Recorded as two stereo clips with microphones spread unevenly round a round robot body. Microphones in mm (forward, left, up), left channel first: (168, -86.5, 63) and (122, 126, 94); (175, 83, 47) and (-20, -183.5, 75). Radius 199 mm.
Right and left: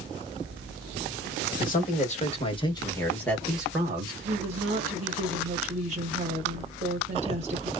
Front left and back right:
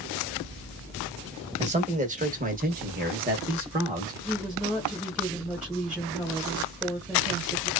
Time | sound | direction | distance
1.6 | a man speaking | 55° right | 1.5 m
4.2 | a woman speaking | 140° left | 0.9 m